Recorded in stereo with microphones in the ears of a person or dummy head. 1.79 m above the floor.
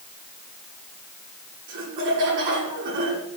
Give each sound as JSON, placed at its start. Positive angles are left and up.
{"t": 1.7, "sound": "laughter", "side_deg": -55, "distance_m": 6.5}